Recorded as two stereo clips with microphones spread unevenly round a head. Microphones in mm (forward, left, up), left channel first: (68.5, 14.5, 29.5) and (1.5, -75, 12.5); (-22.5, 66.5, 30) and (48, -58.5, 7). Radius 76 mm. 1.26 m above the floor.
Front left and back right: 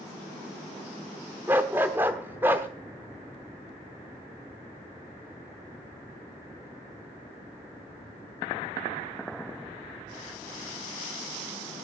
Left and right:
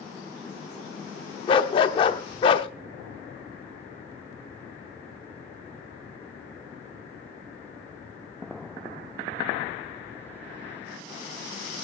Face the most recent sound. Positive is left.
turn(degrees=150)